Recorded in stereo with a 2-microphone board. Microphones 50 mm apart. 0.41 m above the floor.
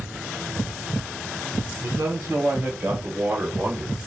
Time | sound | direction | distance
1.8 | a man speaking | 60° right (ahead or behind) | 2.5 m